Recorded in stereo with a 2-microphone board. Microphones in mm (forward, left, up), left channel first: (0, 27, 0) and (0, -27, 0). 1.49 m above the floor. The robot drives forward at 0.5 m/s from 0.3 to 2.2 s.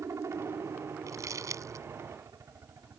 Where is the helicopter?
65° right (ahead or behind).